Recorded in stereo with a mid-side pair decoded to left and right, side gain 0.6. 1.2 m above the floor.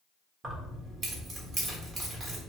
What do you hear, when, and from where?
0.4 s keys jangling: 35° right, 1.2 m